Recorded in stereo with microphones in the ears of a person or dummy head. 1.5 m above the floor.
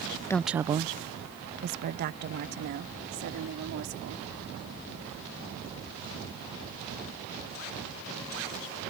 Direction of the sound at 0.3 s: 10° left (ahead or behind).